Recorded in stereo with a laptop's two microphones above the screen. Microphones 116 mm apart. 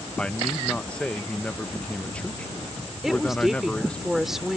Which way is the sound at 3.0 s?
5° right (ahead or behind).